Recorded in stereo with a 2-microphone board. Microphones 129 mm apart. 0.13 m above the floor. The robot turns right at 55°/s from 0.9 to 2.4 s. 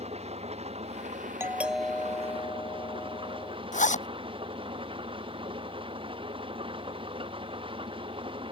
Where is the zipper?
80° left.